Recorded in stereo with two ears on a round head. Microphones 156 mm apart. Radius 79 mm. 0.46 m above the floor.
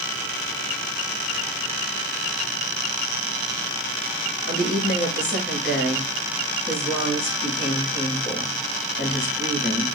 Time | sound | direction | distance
4.4 | a woman speaking | 80° left | 5.5 m